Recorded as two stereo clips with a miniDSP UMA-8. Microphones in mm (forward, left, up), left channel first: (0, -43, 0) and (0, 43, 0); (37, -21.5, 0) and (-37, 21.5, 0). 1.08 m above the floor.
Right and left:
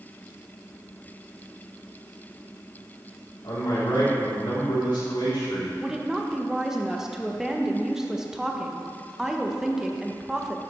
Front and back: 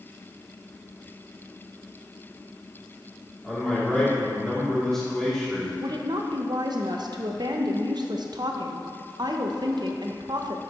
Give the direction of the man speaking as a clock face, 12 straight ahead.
4 o'clock.